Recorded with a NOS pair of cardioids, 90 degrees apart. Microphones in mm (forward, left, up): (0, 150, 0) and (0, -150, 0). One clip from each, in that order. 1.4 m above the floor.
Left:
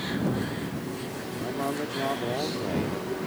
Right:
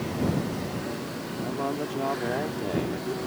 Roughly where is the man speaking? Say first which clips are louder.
Even; ahead.